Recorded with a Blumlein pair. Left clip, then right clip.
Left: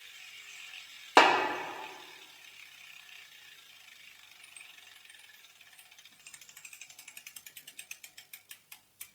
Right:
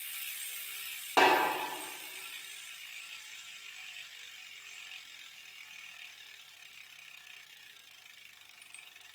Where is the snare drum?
25° left, 0.8 m.